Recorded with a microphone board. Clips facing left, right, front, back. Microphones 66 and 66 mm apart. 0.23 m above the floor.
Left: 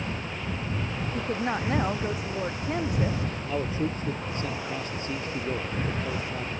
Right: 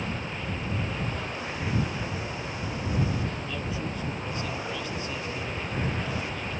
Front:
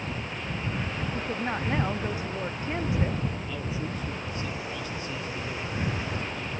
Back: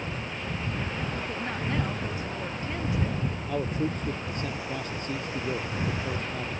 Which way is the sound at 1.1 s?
65° left.